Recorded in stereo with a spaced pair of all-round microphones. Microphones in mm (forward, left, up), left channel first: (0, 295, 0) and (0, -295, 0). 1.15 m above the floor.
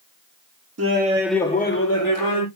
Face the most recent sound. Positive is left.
turn(degrees=40)  # may be behind; listen again after turning